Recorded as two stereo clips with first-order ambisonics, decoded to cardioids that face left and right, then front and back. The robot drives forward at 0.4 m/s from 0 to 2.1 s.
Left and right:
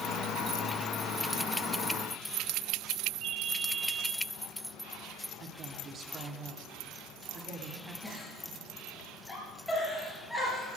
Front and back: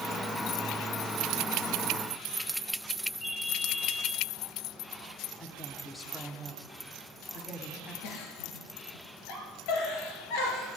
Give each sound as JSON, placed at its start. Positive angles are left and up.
{"t": 3.2, "sound": "a ringtone", "azimuth_deg": -60, "distance_m": 3.0}
{"t": 5.4, "sound": "a woman speaking", "azimuth_deg": -70, "distance_m": 1.5}
{"t": 8.0, "sound": "a giggle", "azimuth_deg": 0, "distance_m": 4.0}